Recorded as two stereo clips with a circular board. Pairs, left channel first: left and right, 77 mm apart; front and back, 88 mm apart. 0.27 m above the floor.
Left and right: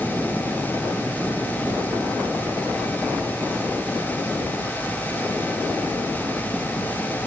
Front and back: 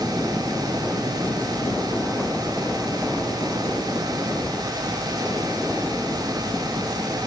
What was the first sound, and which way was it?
Only background noise.